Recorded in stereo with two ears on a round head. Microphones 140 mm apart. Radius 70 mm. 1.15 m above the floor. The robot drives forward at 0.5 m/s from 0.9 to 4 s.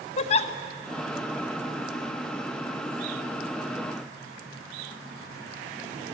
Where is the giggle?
40° left (ahead or behind), 0.8 m.